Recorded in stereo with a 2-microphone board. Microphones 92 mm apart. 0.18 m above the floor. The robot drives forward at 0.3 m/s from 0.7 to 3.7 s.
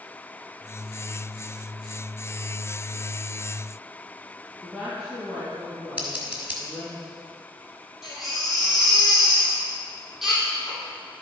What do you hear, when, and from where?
4.6 s a woman speaking: 5° right (ahead or behind), 2 m
6.0 s scissors: 15° right (ahead or behind), 2 m
8.0 s a baby crying: 5° right (ahead or behind), 2.5 m